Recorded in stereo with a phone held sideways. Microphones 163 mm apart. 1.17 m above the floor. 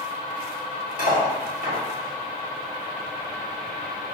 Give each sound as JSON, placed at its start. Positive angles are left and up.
{"t": 1.0, "sound": "cutlery clinking", "side_deg": 60, "distance_m": 1.9}